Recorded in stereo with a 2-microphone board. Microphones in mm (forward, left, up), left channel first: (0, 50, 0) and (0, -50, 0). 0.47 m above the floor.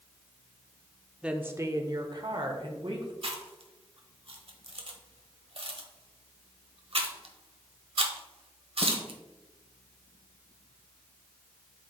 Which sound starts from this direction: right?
Chewing, at 3.2 s.